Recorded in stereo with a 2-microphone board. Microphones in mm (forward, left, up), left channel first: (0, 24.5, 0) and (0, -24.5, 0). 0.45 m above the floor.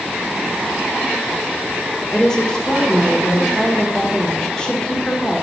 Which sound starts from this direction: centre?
A woman speaking, at 2.1 s.